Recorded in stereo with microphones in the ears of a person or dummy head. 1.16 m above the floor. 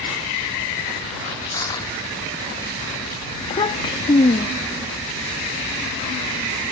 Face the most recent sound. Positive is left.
turn(degrees=25)  # may be behind; listen again after turning